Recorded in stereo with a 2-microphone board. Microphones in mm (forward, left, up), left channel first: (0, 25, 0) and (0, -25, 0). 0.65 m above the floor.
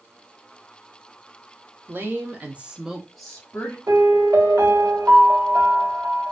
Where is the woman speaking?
45° right (ahead or behind), 1.3 m; by 3.8 s 20° left (ahead or behind), 1.3 m.